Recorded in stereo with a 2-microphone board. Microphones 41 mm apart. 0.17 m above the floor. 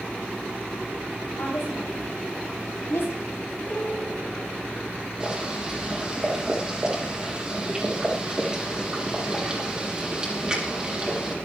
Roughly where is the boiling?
Centre.